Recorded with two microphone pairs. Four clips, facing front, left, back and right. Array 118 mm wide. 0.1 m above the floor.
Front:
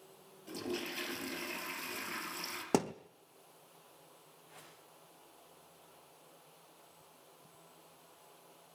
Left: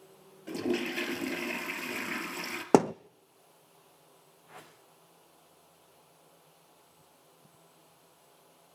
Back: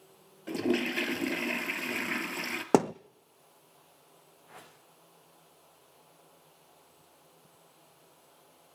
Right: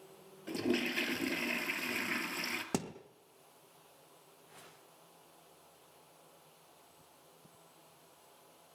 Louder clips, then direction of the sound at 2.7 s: Left 17 dB, back 8 dB; 120° left.